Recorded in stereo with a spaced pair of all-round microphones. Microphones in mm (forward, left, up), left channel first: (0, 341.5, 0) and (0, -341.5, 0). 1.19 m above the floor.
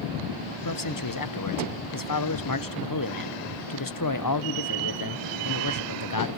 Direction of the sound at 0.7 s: 30° left (ahead or behind).